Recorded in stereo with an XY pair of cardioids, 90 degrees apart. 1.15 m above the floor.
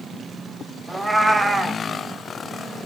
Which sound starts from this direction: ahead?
A cat meowing, at 0.9 s.